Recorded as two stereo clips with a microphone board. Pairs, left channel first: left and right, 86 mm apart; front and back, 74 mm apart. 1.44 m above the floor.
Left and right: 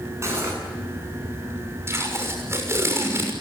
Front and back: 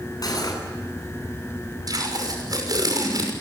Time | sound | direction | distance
0.2 | cutlery clinking | 35° right | 9.5 m
1.9 | tape being pulled | 150° right | 6 m